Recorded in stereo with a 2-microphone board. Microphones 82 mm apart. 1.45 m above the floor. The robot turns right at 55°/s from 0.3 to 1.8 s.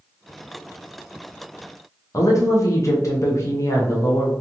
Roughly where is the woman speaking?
Left.